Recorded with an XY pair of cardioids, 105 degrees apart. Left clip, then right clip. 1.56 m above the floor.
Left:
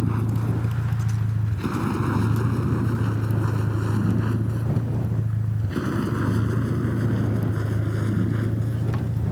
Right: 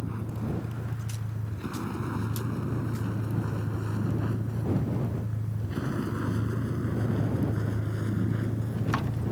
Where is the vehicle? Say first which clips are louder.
Left 8 dB; 60° left; by 9.3 s 30° left.